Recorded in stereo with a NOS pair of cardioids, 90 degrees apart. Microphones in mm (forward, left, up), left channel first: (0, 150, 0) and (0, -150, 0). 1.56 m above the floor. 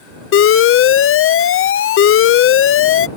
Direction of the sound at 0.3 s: 50° left.